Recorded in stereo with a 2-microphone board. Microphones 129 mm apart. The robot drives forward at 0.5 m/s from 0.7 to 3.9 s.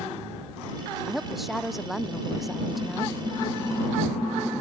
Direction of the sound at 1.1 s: Centre (ahead or behind).